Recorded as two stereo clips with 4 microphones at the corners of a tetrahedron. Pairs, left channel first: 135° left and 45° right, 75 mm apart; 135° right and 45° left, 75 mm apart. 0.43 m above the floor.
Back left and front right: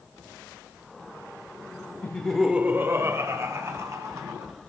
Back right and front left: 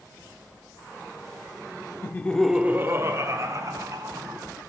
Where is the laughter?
170° right, 0.9 m; by 4.5 s 5° left, 3.5 m.